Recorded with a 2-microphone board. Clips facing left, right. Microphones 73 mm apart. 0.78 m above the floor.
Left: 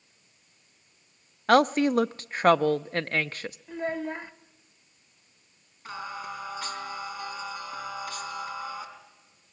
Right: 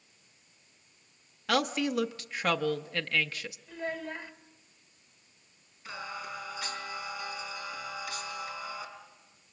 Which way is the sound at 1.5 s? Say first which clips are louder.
Left 8 dB; 40° left (ahead or behind).